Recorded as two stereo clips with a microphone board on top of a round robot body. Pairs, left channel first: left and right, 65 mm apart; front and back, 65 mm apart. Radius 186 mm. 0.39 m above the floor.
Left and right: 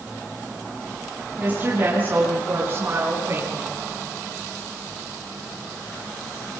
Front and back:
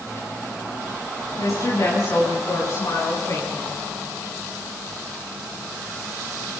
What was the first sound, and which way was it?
A woman speaking, 30° right.